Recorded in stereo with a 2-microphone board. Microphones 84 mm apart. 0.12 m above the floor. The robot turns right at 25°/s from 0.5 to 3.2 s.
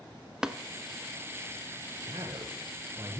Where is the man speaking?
80° right, 1.8 m; by 3.2 s 50° right, 1.8 m.